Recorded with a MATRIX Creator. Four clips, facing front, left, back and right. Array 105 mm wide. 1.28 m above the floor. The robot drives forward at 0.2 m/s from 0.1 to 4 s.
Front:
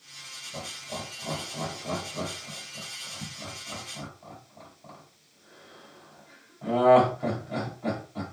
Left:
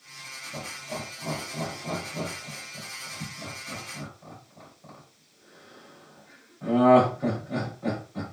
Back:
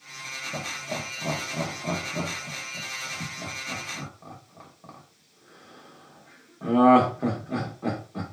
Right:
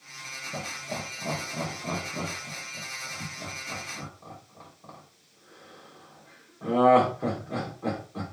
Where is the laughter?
160° right, 0.7 m; by 8.2 s 170° right, 1.3 m.